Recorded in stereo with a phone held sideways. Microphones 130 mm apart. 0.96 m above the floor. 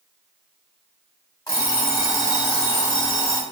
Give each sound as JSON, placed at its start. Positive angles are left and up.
{"t": 1.5, "sound": "an alarm clock", "side_deg": 30, "distance_m": 1.0}